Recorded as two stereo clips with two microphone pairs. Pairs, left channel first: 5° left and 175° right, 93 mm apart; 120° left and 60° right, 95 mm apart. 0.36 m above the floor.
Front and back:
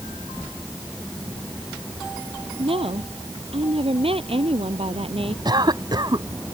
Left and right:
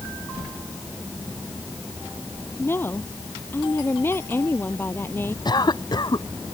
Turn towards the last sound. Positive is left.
turn(degrees=150)